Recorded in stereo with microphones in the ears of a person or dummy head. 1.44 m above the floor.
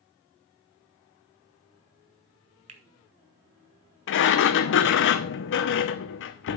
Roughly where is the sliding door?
Left.